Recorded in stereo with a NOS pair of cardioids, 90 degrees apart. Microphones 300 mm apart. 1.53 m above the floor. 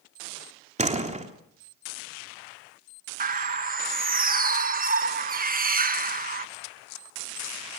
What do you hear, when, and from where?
0.8 s a door slam: 25° right, 3 m
3.2 s a bird: 30° right, 1.3 m